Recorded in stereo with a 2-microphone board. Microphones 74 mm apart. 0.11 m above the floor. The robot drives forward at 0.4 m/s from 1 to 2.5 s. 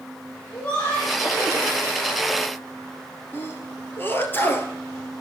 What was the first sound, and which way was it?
Laughter, 20° left (ahead or behind).